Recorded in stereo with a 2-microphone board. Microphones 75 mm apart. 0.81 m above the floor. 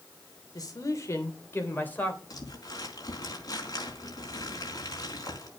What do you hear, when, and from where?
0.6 s a man speaking: 50° left (ahead or behind), 2.5 m; by 2.2 s 20° left (ahead or behind), 3 m
2.3 s crumpling: 50° left (ahead or behind), 4 m